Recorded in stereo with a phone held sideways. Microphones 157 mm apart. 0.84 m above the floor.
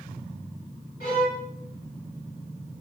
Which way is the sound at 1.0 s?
75° left (ahead or behind).